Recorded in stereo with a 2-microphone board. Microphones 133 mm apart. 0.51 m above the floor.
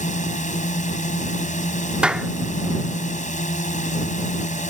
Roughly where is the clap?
Centre.